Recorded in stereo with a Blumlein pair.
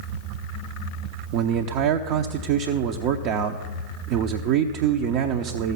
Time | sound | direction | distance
1.3 | a man speaking | 40° right | 0.7 m